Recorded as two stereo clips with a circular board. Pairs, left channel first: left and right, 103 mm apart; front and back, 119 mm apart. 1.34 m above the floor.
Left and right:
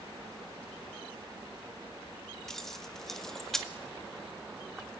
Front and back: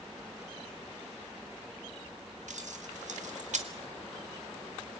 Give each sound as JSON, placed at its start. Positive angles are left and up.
{"t": 2.5, "sound": "keys jangling", "azimuth_deg": 175, "distance_m": 1.9}